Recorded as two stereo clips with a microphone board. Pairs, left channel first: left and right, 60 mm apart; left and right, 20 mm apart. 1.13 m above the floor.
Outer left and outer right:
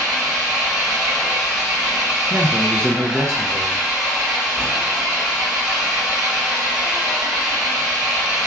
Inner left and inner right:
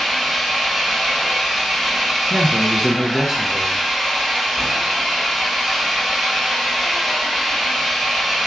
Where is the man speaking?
45° right (ahead or behind), 0.5 m.